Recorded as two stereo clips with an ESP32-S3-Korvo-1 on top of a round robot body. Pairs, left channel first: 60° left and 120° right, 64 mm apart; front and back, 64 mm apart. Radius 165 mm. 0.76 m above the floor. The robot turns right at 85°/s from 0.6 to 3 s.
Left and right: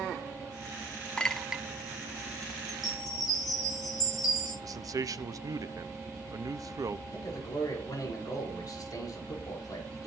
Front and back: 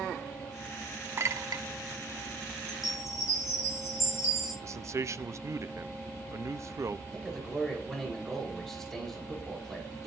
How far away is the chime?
About 8 m.